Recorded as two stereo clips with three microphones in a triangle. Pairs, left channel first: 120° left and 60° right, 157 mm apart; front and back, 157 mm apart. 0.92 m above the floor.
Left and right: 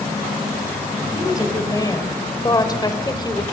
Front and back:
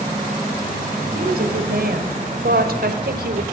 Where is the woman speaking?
175° right, 4.5 m.